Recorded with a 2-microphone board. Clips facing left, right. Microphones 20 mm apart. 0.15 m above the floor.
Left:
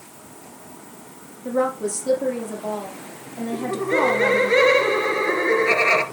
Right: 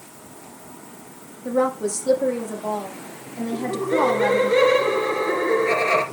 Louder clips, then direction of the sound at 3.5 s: Even; 30° left (ahead or behind).